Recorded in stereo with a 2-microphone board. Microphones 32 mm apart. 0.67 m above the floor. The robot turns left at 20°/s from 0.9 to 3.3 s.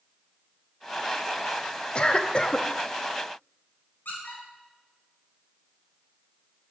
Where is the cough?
35° left (ahead or behind), 0.7 m.